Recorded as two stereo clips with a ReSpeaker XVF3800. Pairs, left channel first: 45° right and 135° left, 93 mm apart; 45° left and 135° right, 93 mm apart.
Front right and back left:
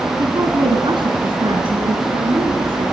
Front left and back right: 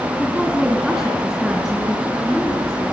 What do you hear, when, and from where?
0.2 s a woman speaking: 155° left, 1.8 m; by 2.9 s 130° left, 4 m